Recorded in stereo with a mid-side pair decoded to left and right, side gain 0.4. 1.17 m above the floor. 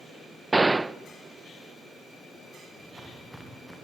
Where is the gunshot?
20° right, 0.6 m.